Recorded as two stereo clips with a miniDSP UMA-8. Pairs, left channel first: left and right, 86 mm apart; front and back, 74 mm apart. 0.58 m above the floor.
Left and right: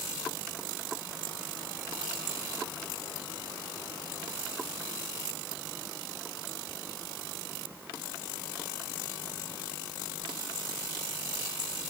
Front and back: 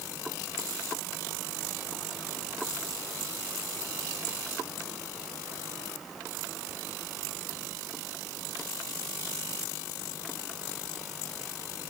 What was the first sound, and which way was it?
Only background noise.